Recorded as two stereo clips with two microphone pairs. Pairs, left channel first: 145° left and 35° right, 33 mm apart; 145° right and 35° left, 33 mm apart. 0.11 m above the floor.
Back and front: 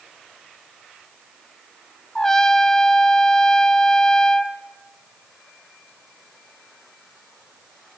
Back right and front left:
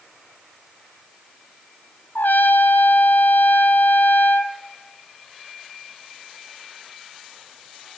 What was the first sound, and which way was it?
A trumpet, 140° right.